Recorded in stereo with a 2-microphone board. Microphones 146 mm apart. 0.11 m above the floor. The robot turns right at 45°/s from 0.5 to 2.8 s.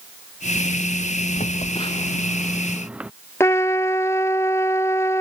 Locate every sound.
1.4 s a phone buzzing: 55° left (ahead or behind); by 3.1 s 10° right (ahead or behind)
3.4 s a trumpet: 20° left (ahead or behind)